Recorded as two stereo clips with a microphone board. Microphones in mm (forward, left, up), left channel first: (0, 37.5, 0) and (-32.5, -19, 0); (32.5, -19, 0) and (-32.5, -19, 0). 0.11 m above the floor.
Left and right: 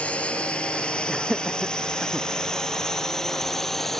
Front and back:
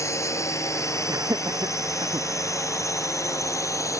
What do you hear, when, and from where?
0.0 s a drone: straight ahead; by 4.0 s 25° right
1.1 s laughter: 160° left